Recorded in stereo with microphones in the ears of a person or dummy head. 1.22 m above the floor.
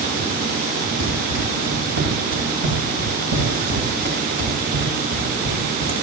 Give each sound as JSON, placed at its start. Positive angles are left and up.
{"t": 1.0, "sound": "running footsteps", "side_deg": -70, "distance_m": 7.5}